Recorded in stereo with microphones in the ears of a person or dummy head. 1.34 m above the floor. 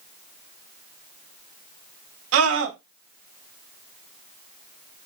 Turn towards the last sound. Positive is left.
turn(degrees=-80)